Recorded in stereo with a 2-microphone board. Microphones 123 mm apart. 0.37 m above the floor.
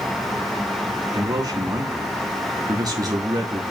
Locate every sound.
1.1 s a man speaking: 30° right (ahead or behind), 3 m